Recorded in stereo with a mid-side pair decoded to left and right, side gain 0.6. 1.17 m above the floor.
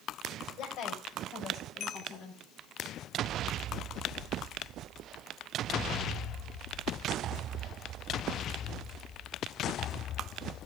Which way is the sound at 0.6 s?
55° left.